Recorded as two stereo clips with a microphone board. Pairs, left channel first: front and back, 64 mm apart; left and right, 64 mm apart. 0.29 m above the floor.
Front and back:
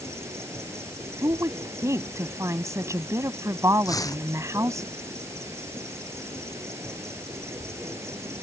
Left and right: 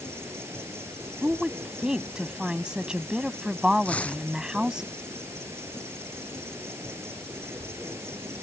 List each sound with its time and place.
0.0 s an insect: 135° right
1.2 s a woman speaking: 165° right
3.9 s tearing paper: 20° left